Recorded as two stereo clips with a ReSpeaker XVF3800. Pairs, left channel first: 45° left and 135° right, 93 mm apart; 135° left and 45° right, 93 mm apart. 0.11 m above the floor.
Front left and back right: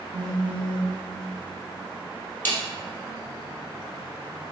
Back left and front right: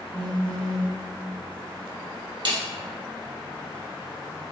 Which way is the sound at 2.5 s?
20° right.